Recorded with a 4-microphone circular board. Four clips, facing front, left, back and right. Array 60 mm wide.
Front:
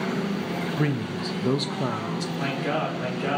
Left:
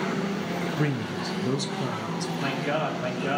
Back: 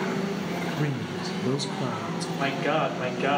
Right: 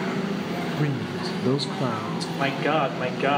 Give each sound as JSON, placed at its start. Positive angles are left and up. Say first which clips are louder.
{"t": 0.8, "sound": "a man speaking", "louder": "right 1 dB, front 3 dB", "azimuth_deg": 30, "distance_m": 0.7}
{"t": 2.4, "sound": "a man speaking", "louder": "right 6 dB, back 3 dB", "azimuth_deg": -110, "distance_m": 2.0}